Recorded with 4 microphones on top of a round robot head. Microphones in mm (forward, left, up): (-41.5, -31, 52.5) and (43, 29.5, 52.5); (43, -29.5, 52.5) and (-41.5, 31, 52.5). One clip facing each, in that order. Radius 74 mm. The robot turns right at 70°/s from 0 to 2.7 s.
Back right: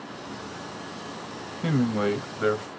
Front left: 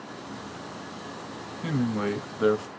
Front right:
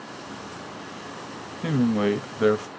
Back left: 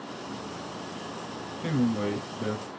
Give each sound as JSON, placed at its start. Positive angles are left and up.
{"t": 1.6, "sound": "a man speaking", "azimuth_deg": -95, "distance_m": 0.8}